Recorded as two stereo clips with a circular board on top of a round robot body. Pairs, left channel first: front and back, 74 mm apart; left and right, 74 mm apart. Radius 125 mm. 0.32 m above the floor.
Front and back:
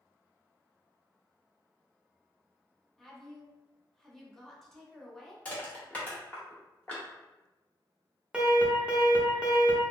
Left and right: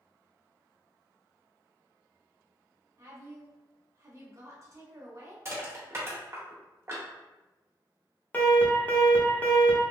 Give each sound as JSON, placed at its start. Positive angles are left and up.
{"t": 3.0, "sound": "a woman speaking", "azimuth_deg": -85, "distance_m": 1.3}
{"t": 5.5, "sound": "crushing", "azimuth_deg": -60, "distance_m": 1.6}
{"t": 8.3, "sound": "an alarm", "azimuth_deg": 115, "distance_m": 1.1}